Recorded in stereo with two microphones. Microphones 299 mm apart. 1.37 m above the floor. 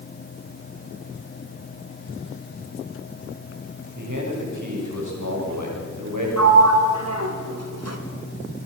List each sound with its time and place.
4.0 s a man speaking: 80° right, 6.5 m
6.4 s a sliding door: 55° right (ahead or behind), 2.5 m